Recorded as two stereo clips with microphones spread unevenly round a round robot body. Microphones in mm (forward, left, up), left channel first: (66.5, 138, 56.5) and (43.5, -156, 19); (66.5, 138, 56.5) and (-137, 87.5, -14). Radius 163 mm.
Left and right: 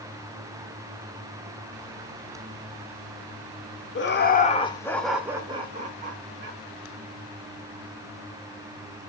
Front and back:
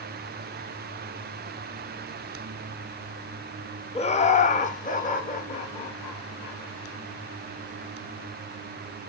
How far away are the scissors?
I don't hear scissors.